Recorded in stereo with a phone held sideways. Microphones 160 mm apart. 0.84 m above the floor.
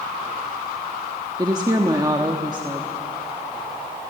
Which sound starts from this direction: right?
A woman speaking, at 1.4 s.